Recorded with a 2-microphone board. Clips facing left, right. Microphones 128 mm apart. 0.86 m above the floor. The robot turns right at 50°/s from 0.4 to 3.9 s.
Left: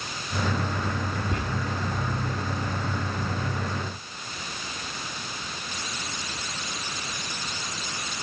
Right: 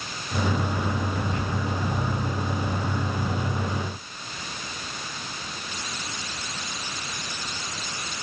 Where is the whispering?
65° left (ahead or behind), 1.2 m; by 1.4 s 70° left (ahead or behind), 1.2 m.